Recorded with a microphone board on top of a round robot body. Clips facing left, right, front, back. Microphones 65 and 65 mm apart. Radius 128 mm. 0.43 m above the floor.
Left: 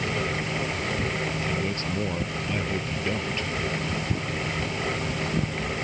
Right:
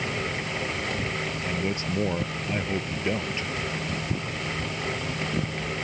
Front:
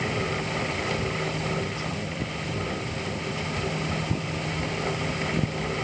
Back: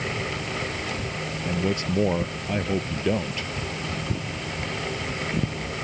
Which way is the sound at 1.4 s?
165° right.